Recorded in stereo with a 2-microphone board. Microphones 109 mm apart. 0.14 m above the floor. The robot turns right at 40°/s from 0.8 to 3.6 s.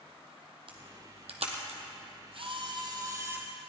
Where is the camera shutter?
55° right (ahead or behind), 1.8 m; by 3.5 s 20° right (ahead or behind), 1.8 m.